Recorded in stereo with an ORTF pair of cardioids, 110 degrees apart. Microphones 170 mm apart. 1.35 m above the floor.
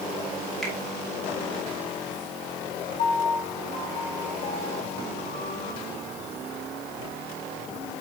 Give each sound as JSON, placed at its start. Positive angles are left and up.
{"t": 0.6, "sound": "a finger snap", "azimuth_deg": 5, "distance_m": 2.5}
{"t": 3.0, "sound": "a piano", "azimuth_deg": 50, "distance_m": 4.0}